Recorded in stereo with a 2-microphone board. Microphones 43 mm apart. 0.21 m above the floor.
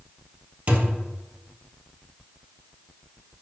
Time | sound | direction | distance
0.7 | a thud | 40° right (ahead or behind) | 1.6 m